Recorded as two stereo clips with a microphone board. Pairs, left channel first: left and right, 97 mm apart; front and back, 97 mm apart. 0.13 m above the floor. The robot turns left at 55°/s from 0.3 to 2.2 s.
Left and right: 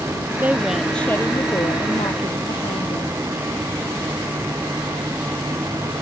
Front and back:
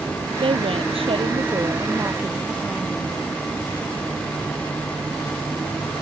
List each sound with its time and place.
0.4 s a woman speaking: 160° right; by 3.2 s 100° left